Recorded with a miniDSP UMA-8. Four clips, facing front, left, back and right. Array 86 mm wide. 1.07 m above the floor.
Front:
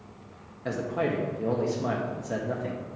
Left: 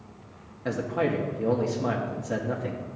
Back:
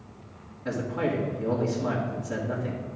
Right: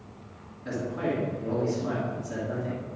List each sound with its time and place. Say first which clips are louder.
0.7 s a man speaking: left 3 dB, even; 55° left, 1.8 m